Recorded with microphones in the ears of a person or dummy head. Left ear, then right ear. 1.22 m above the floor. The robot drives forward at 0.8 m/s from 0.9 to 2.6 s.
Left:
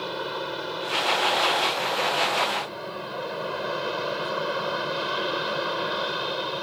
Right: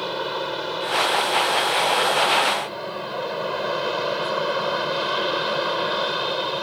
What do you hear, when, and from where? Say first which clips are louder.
0.0 s an aircraft: right 4 dB; 10° right (ahead or behind)